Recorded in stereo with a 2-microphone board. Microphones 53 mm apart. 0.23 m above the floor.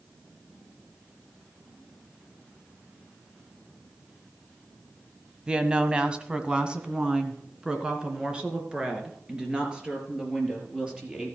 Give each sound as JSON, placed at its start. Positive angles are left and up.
{"t": 5.5, "sound": "a woman speaking", "side_deg": -15, "distance_m": 1.0}